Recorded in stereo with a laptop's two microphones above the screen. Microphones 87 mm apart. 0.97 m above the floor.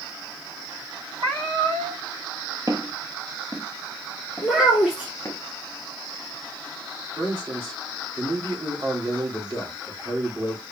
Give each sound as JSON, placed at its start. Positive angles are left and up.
{"t": 1.2, "sound": "a cat meowing", "side_deg": -65, "distance_m": 4.0}
{"t": 2.7, "sound": "footsteps", "side_deg": -45, "distance_m": 1.4}
{"t": 4.4, "sound": "a child speaking", "side_deg": -20, "distance_m": 1.6}
{"t": 7.2, "sound": "a man speaking", "side_deg": -55, "distance_m": 2.0}